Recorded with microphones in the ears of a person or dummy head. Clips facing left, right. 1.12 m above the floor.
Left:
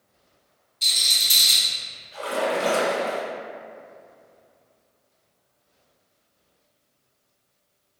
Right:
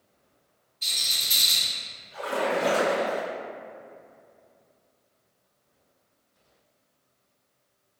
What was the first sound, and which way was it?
A rattle, 50° left (ahead or behind).